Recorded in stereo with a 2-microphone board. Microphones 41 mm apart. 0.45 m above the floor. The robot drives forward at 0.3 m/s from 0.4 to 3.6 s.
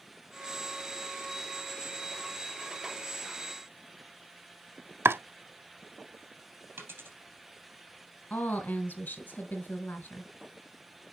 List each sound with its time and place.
5.0 s chopping: 65° right (ahead or behind), 0.7 m
6.8 s a dropped coin: 50° right (ahead or behind), 3.5 m
8.3 s a woman speaking: 45° left (ahead or behind), 2 m